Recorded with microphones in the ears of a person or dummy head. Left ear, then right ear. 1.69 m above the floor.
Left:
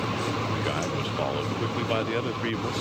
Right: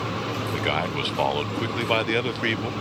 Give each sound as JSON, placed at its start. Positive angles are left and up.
{"t": 0.5, "sound": "a man speaking", "side_deg": -25}